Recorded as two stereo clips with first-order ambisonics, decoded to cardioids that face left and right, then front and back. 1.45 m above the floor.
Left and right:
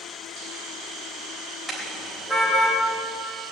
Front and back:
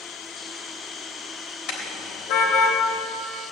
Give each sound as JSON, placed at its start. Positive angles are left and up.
{"t": 1.7, "sound": "a car horn", "azimuth_deg": 5, "distance_m": 3.0}